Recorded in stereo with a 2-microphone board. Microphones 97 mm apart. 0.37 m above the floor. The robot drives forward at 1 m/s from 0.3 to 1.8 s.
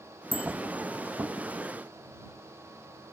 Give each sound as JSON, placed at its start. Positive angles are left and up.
{"t": 0.3, "sound": "a bicycle bell", "side_deg": -85, "distance_m": 5.5}